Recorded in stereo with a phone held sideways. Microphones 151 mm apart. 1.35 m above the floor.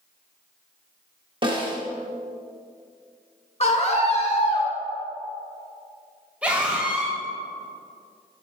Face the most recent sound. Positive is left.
turn(degrees=-10)  # may be behind; listen again after turning